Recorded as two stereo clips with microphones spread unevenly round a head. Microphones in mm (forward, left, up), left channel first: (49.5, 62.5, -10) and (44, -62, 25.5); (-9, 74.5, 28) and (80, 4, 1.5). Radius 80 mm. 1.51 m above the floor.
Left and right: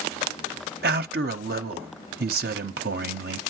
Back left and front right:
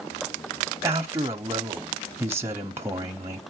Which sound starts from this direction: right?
A man speaking, at 0.8 s.